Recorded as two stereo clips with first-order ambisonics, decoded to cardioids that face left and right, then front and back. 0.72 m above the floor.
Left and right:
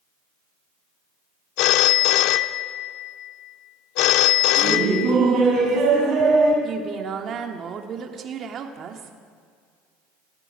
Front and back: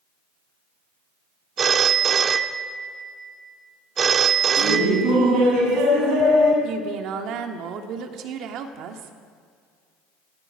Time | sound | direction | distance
1.6 | a phone ringing | 115° left | 0.7 m
4.6 | laughter | 140° right | 6 m
6.6 | a woman speaking | 145° right | 1.5 m